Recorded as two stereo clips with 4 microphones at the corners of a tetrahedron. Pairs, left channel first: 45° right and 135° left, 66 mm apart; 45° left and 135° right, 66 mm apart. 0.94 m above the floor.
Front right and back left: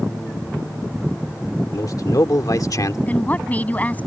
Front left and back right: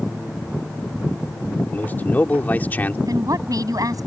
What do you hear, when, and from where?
1.7 s a man speaking: 20° right
3.1 s a woman speaking: 110° right